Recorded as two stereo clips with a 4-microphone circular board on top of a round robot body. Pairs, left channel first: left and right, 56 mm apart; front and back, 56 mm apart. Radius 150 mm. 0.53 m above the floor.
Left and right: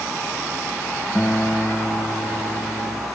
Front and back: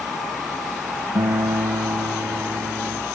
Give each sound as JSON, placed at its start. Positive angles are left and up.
{"t": 1.1, "sound": "a guitar", "azimuth_deg": 165}